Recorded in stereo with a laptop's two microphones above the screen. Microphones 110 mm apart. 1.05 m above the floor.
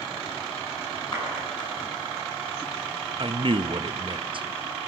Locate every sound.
1.1 s a clap: 40° left (ahead or behind), 10 m
3.2 s a man speaking: 50° right (ahead or behind), 0.8 m